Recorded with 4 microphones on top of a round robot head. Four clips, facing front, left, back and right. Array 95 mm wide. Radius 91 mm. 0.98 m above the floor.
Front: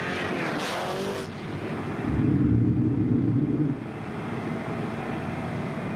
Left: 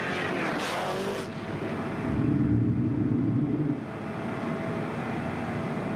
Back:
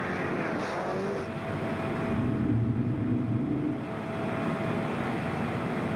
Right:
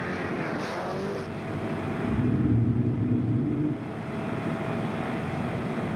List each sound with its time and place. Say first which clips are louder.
2.0 s snoring: even, front 7 dB; 15° left, 2 m